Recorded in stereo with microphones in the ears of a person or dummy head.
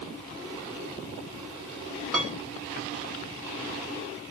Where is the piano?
Centre (ahead or behind), 1.1 m.